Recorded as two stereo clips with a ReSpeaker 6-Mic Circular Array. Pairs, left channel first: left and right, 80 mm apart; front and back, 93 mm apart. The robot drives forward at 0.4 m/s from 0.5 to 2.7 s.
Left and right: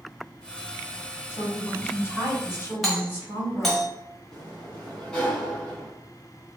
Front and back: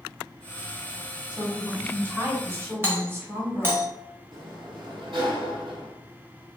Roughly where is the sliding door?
Behind.